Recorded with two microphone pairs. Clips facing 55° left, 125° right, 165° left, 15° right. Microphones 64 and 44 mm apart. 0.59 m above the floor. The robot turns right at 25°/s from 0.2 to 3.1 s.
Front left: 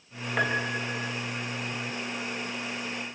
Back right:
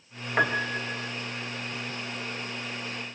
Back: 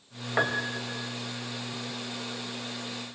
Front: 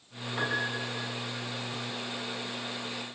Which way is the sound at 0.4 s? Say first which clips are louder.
Back right 2 dB, back 3 dB; 155° left.